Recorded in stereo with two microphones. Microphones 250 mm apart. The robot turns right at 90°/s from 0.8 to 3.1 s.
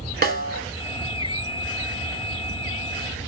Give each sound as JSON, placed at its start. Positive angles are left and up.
{"t": 0.2, "sound": "a snare drum", "side_deg": -40, "distance_m": 0.8}